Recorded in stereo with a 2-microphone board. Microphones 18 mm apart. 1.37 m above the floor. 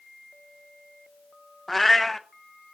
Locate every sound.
1.7 s a cat meowing: 5° left (ahead or behind), 0.5 m